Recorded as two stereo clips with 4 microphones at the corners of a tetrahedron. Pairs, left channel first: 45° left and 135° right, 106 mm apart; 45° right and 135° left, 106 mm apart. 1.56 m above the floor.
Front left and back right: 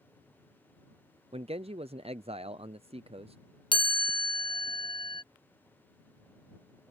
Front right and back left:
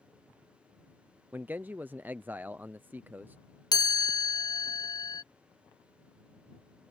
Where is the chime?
5° left.